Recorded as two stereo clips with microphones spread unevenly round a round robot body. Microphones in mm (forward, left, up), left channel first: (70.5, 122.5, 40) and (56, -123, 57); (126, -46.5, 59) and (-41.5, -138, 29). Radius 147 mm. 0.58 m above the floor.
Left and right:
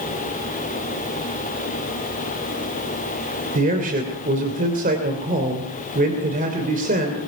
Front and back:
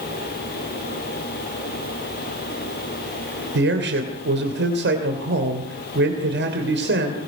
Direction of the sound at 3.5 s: 155° right.